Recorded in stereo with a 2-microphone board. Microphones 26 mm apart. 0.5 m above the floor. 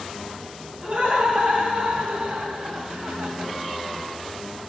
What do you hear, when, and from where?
0.8 s laughter: 50° right (ahead or behind), 3 m; by 3.5 s 75° right (ahead or behind), 2.5 m